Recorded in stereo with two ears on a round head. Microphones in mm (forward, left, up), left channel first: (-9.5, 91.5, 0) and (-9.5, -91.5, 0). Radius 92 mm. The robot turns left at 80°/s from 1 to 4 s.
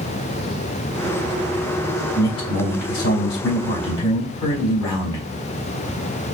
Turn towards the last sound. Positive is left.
turn(degrees=25)